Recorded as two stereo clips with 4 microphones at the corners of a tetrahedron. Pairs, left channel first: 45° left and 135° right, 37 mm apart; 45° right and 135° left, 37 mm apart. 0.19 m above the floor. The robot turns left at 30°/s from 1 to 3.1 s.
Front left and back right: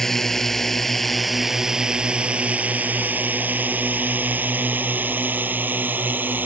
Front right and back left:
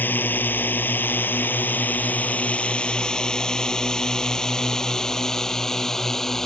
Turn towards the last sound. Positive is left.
turn(degrees=-120)